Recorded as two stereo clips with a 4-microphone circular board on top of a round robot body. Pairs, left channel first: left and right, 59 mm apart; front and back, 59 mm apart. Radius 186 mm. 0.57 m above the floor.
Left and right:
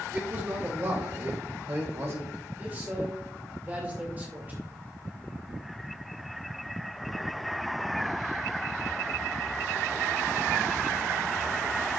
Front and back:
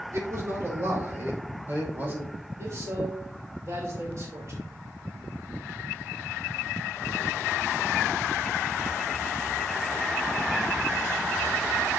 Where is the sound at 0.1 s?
145° right, 3.5 m; by 2.3 s 130° right, 4.5 m.